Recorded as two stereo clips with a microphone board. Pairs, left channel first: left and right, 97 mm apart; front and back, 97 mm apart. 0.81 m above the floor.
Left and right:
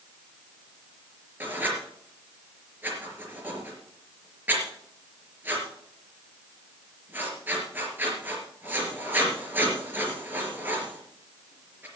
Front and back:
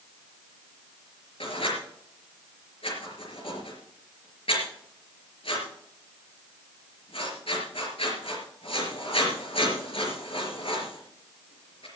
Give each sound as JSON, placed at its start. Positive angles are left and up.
{"t": 1.4, "sound": "writing", "azimuth_deg": -20, "distance_m": 4.0}